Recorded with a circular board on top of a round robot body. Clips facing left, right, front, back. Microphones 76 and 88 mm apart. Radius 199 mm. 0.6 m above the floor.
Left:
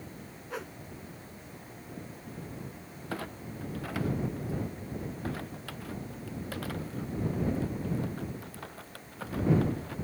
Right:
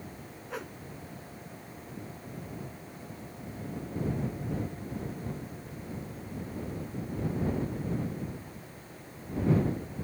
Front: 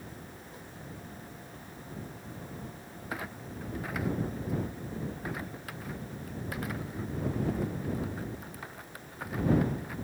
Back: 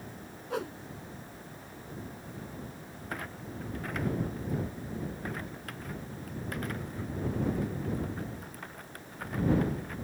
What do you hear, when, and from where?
0.5 s a whoosh: straight behind
3.1 s a clunk: 85° left